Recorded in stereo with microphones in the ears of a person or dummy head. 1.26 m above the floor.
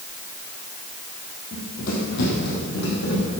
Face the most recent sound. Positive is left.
turn(degrees=60)  # may be behind; listen again after turning